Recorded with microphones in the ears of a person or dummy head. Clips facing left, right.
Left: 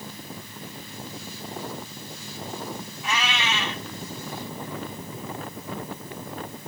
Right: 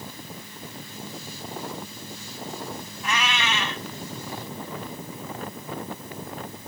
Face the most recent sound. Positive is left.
turn(degrees=-50)  # may be behind; listen again after turning